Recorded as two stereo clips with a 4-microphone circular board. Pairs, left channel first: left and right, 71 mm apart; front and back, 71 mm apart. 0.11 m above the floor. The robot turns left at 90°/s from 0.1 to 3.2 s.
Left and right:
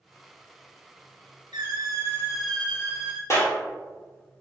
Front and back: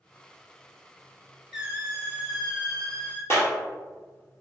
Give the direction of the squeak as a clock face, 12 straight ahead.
3 o'clock.